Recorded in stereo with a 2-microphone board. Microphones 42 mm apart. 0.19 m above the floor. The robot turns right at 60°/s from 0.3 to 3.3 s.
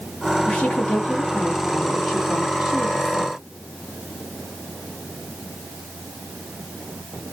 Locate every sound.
0.5 s a woman speaking: 30° left (ahead or behind), 1.7 m; by 3.4 s 30° right (ahead or behind), 1.7 m